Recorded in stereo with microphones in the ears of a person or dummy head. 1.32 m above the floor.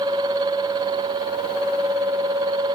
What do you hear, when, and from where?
Only background noise.